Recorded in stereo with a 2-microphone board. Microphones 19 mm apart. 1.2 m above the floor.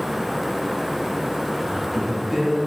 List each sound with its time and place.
1.6 s a man speaking: centre (ahead or behind), 3.5 m